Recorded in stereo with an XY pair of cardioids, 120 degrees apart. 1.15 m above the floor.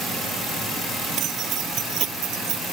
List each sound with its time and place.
1.2 s keys jangling: 65° right; by 2.6 s 70° right